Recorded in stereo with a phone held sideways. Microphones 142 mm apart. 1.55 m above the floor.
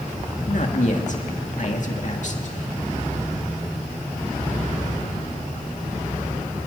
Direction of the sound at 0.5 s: 60° left (ahead or behind).